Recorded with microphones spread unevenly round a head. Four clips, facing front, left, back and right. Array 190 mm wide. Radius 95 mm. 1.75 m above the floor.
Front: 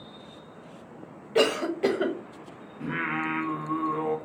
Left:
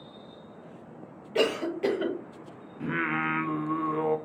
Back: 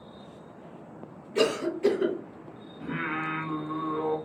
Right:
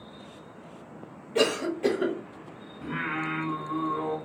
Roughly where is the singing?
Ahead left.